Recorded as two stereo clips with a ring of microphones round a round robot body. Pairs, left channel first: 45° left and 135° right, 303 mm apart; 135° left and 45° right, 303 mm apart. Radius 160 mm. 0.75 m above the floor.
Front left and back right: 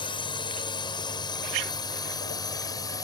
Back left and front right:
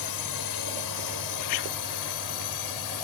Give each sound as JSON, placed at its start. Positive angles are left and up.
{"t": 0.0, "sound": "a drone", "azimuth_deg": 120}